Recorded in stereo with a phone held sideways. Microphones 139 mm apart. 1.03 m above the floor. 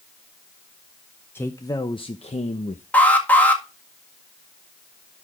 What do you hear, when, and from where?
1.4 s a man speaking: 15° left (ahead or behind), 0.7 m; by 2.8 s 60° left (ahead or behind), 0.9 m
2.9 s an alarm: 10° left (ahead or behind), 1.8 m